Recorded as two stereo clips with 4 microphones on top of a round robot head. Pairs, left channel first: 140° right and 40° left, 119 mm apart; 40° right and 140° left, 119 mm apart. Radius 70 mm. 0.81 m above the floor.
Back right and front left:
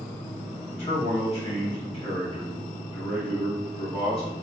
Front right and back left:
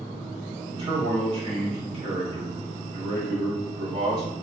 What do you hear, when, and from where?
0.7 s a man speaking: 175° right, 1.8 m